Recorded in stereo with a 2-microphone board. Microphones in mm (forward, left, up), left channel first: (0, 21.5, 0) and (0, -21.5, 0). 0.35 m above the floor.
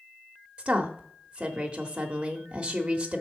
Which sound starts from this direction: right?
A woman speaking, at 0.6 s.